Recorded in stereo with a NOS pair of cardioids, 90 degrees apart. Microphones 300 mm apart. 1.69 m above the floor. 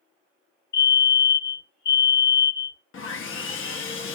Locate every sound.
0.7 s a fire alarm: 35° left, 1.3 m
2.9 s sawing: 45° left, 0.7 m